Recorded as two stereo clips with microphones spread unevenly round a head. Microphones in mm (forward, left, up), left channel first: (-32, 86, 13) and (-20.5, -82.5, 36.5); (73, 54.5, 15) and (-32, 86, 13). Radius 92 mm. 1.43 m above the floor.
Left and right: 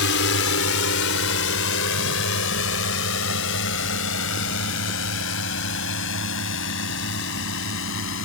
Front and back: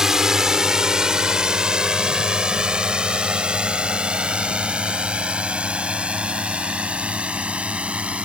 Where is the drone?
80° left; by 8.2 s 85° left.